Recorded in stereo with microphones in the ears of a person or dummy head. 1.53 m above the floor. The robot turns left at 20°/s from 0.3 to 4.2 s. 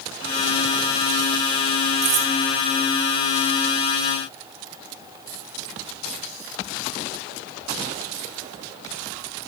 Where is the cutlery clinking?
40° right (ahead or behind), 1.0 m; by 2.3 s 35° right (ahead or behind), 1.0 m.